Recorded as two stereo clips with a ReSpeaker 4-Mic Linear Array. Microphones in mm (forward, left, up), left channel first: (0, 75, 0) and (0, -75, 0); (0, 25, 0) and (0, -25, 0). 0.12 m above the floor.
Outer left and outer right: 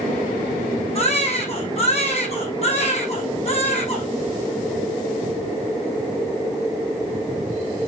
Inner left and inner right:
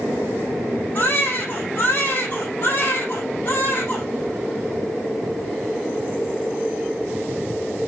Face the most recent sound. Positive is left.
turn(degrees=45)  # may be behind; listen again after turning